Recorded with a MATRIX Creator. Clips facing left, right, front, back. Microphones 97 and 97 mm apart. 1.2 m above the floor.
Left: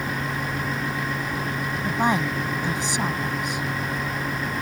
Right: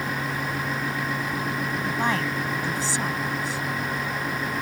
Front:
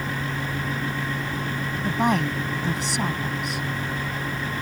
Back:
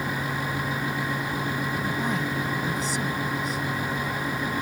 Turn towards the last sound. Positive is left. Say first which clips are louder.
# left 4 dB, front 5 dB
turn(degrees=20)